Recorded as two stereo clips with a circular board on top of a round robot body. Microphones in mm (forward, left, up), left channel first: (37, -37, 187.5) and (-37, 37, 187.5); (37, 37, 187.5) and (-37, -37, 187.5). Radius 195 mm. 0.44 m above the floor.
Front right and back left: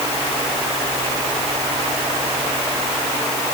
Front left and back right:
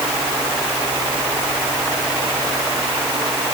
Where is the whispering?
I don't hear whispering.